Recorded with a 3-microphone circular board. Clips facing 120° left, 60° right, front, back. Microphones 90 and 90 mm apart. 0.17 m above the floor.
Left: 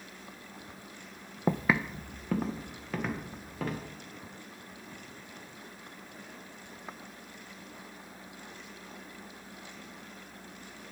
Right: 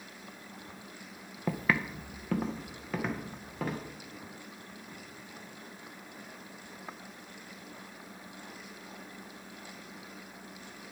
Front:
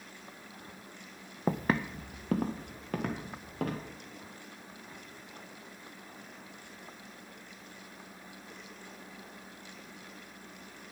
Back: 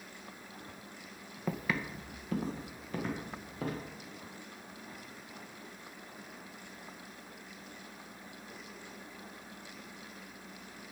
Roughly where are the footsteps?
Ahead left.